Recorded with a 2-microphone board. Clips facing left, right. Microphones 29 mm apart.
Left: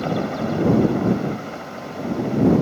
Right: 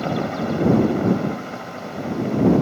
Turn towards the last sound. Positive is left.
turn(degrees=-5)  # may be behind; listen again after turning